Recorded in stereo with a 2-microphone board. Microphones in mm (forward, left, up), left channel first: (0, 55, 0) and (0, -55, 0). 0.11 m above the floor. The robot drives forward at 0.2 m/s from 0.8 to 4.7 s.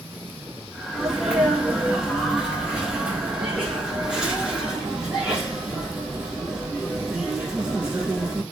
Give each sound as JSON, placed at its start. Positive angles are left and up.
{"t": 0.9, "sound": "a sneeze", "side_deg": -10, "distance_m": 1.2}